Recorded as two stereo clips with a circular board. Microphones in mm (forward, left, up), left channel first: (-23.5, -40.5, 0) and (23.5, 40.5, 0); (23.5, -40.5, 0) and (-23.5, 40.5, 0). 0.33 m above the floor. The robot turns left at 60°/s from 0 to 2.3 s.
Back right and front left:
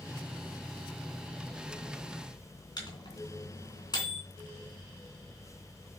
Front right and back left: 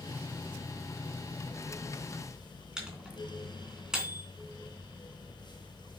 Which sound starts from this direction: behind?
A microwave, at 2.8 s.